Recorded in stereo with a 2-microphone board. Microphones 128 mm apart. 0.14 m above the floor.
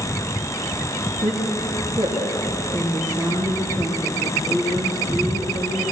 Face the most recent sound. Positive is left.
turn(degrees=-30)  # may be behind; listen again after turning